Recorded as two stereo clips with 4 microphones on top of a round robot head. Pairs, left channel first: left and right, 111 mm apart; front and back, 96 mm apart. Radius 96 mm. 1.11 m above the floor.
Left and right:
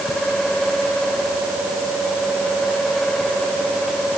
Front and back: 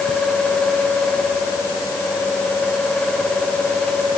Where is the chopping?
I don't hear chopping.